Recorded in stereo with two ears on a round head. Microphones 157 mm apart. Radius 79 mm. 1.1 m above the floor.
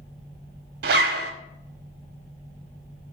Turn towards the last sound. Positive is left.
turn(degrees=-60)  # may be behind; listen again after turning